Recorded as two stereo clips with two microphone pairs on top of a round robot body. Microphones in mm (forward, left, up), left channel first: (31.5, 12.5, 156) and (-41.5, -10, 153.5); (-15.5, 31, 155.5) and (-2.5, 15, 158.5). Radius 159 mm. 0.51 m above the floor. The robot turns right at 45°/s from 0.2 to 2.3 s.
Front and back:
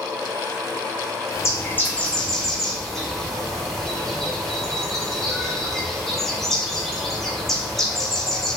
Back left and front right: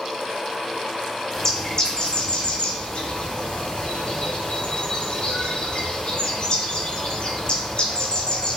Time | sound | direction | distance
1.3 | a bird | 60° left | 1.2 m